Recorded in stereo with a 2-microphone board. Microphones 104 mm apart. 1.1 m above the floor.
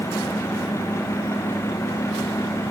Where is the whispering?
No whispering in this recording.